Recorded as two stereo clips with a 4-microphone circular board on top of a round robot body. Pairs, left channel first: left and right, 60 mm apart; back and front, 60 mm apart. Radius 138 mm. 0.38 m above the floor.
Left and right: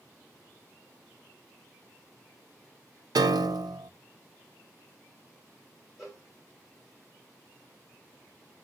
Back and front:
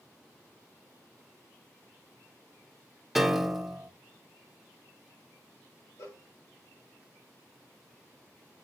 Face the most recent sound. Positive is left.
turn(degrees=-170)